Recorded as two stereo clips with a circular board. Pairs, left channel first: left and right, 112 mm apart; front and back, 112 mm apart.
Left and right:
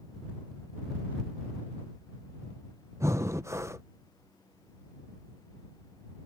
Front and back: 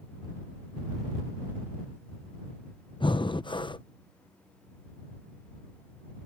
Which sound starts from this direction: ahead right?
Breathing, at 3.0 s.